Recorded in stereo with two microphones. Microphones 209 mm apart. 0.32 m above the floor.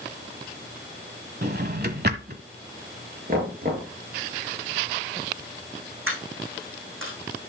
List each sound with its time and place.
1.4 s a drawer: 50° right (ahead or behind), 1.1 m
3.3 s knocking: 50° right (ahead or behind), 5 m
6.1 s a dropped coin: 90° right, 7 m